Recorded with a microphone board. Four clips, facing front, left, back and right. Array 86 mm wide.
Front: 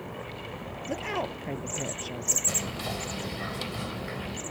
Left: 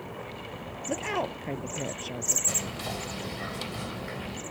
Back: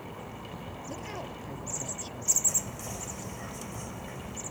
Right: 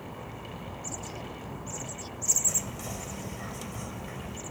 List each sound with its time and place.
0.9 s a woman speaking: 55° left
2.5 s whispering: 35° left